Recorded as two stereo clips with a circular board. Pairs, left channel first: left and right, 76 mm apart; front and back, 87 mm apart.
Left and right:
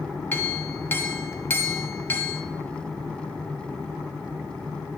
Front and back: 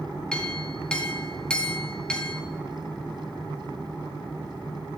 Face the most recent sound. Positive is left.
turn(degrees=70)